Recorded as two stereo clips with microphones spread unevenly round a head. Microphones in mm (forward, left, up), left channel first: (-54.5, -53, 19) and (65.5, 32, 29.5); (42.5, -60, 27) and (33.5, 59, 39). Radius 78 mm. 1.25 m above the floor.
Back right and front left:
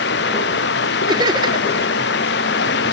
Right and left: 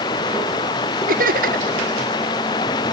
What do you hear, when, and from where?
0.0 s running water: 150° right
1.1 s laughter: 100° left